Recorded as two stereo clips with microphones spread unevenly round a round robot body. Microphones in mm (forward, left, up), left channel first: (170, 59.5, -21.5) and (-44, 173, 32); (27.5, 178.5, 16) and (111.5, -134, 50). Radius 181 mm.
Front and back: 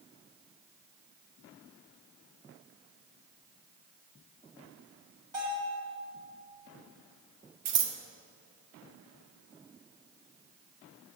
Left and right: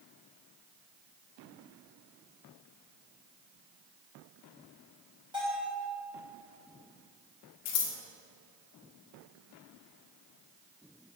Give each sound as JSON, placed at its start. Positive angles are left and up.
{"t": 5.3, "sound": "a bell", "azimuth_deg": -155, "distance_m": 3.0}
{"t": 7.7, "sound": "scissors", "azimuth_deg": 155, "distance_m": 1.0}